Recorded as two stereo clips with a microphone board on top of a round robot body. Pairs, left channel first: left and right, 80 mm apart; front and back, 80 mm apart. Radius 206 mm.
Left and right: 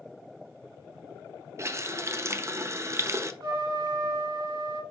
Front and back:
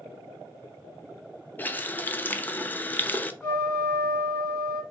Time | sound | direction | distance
1.6 | a running tap | 55° right | 0.7 m
3.4 | a trumpet | 65° right | 1.9 m